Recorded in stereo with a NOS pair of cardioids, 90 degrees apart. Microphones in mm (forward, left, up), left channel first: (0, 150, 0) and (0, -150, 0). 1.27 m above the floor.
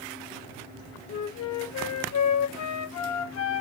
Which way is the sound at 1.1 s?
65° left.